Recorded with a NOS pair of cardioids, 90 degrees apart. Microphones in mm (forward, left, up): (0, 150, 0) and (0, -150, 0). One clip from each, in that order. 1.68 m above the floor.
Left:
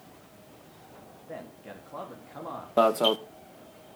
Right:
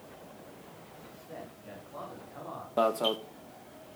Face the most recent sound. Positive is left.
turn(degrees=25)